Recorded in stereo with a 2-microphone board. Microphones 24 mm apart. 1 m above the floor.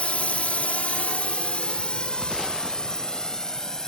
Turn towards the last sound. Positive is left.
turn(degrees=25)  # may be behind; listen again after turning